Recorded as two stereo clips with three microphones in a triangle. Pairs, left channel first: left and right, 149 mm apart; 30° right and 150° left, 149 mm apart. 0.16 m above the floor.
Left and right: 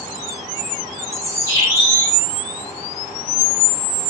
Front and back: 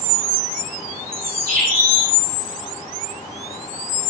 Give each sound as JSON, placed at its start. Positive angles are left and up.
{"t": 1.1, "sound": "a bird", "azimuth_deg": 160, "distance_m": 6.0}